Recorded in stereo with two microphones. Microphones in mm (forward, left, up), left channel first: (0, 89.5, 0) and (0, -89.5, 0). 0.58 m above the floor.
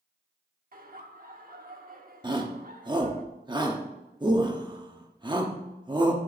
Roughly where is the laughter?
Right.